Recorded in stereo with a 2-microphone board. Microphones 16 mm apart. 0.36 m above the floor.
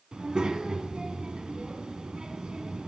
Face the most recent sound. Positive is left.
turn(degrees=-75)  # may be behind; listen again after turning